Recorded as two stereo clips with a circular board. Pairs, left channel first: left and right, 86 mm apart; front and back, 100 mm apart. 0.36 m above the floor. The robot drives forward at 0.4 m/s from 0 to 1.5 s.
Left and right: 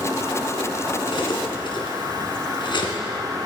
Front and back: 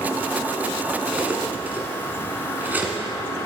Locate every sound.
1.1 s cutlery clinking: 105° left, 1.8 m; by 3.0 s 110° left, 1.8 m